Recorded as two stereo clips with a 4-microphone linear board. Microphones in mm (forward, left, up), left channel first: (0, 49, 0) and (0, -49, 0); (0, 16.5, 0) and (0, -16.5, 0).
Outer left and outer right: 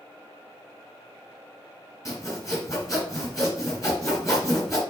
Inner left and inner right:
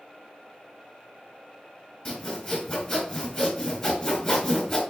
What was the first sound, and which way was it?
Sawing, 35° left (ahead or behind).